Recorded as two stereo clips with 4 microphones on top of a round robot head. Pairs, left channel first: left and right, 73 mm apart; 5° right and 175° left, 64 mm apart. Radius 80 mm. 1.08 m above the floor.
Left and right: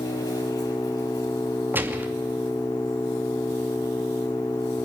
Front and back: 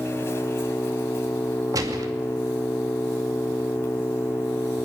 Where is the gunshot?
150° right, 2.5 m.